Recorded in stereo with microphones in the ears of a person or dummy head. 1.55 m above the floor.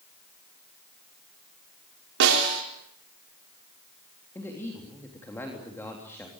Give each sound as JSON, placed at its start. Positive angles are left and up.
{"t": 2.2, "sound": "a snare drum", "side_deg": -60, "distance_m": 4.0}
{"t": 4.3, "sound": "a man speaking", "side_deg": 15, "distance_m": 3.5}